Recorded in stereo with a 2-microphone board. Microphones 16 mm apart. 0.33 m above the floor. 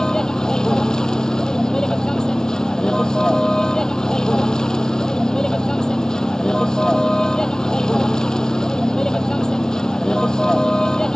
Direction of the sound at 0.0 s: 45° left (ahead or behind).